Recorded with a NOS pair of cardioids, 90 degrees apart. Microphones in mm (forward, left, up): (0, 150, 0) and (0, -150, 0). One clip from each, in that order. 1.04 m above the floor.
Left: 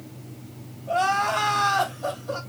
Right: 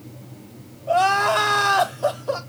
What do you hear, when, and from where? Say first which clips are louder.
0.9 s crying: right 5 dB; 55° right, 1.2 m